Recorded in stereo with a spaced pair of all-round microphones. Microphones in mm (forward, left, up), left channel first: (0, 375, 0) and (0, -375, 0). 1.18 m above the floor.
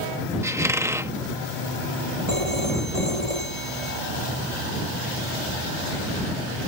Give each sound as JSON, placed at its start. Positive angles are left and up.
{"t": 0.4, "sound": "a squeak", "side_deg": -5}
{"t": 2.3, "sound": "a phone ringing", "side_deg": -55}